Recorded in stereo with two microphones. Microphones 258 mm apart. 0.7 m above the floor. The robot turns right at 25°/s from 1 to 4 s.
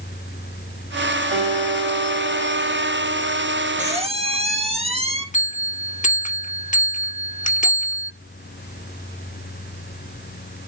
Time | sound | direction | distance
1.3 | a guitar | 25° right | 3.5 m
3.8 | a squeak | 30° right (ahead or behind) | 2.0 m
5.3 | a bell | 30° left (ahead or behind) | 1.0 m